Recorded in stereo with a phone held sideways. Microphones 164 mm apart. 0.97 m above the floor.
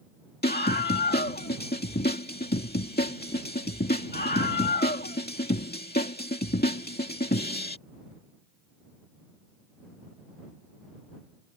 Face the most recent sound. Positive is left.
turn(degrees=75)  # may be behind; listen again after turning